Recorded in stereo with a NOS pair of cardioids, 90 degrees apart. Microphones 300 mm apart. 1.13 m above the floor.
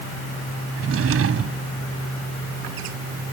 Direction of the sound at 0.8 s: 50° right.